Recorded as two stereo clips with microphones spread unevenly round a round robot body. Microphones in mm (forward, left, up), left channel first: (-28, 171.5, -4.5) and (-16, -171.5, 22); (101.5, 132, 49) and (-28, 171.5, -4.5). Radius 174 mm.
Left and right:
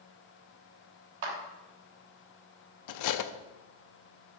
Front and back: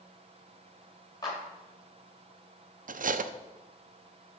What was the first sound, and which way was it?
A clap, 95° right.